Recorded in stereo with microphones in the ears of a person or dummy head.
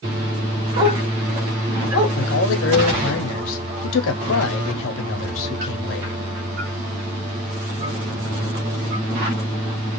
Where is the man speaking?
75° left (ahead or behind), 0.7 m.